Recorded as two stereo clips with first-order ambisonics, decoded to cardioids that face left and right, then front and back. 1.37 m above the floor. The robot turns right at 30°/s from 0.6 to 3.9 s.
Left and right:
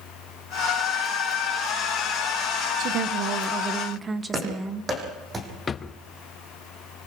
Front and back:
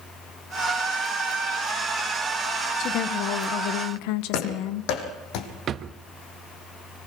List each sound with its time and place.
2.8 s a woman speaking: 50° right, 1.1 m; by 4.9 s 15° right, 1.1 m
4.3 s running footsteps: 15° right, 4.5 m
5.7 s a drawer: 145° left, 0.7 m